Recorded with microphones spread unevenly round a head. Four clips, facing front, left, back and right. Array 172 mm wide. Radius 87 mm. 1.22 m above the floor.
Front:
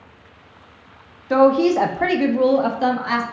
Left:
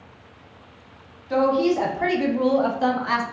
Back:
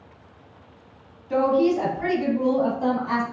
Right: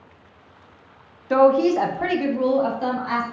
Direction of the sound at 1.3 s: 40° right.